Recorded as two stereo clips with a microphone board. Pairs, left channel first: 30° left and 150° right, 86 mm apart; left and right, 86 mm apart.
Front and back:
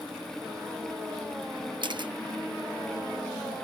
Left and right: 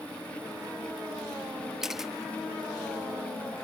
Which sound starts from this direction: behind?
A camera shutter, at 1.8 s.